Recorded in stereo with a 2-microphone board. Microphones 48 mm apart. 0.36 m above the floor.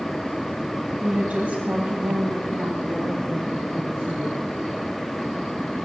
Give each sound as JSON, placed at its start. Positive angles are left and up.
{"t": 1.0, "sound": "a woman speaking", "side_deg": -20, "distance_m": 2.5}